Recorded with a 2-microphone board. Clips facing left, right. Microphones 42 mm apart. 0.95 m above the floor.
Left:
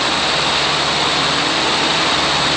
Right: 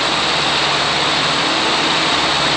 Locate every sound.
Only background noise.